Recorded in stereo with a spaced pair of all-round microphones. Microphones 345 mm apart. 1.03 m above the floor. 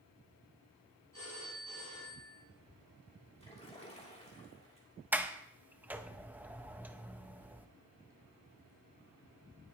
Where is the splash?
15° left (ahead or behind), 3 m.